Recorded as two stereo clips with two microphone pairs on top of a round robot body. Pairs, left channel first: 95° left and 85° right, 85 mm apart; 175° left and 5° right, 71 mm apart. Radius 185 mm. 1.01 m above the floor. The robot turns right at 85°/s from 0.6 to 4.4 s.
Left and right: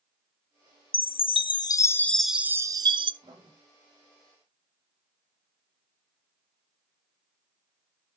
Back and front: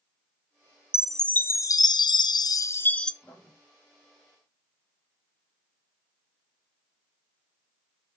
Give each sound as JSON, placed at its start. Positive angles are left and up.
{"t": 0.9, "sound": "a chime", "azimuth_deg": 75, "distance_m": 0.6}
{"t": 3.2, "sound": "writing", "azimuth_deg": -120, "distance_m": 2.5}